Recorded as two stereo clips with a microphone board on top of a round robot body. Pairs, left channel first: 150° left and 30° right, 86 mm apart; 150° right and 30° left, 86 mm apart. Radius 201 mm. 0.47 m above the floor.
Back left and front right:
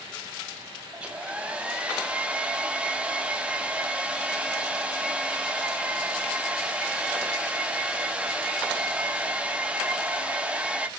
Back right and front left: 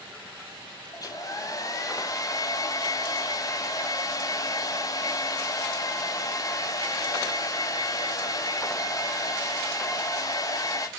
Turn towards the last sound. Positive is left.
turn(degrees=-105)